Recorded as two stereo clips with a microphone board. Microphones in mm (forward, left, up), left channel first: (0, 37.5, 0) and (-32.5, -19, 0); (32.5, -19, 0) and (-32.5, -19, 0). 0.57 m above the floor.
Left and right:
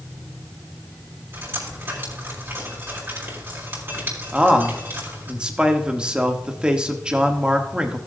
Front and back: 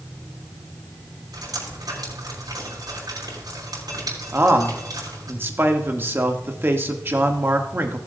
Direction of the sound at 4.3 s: 175° left.